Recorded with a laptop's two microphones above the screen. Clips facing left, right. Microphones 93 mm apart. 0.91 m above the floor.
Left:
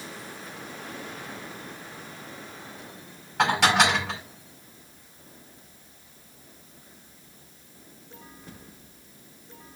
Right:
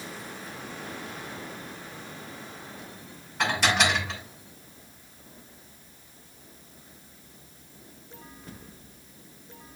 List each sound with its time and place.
3.4 s dishes clattering: 65° left (ahead or behind), 5.5 m